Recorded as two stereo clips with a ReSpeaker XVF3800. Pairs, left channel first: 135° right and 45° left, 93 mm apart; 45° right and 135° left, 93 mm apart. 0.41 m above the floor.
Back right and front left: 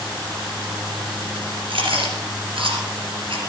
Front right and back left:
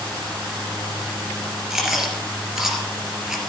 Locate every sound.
1.7 s chewing: 50° left, 3 m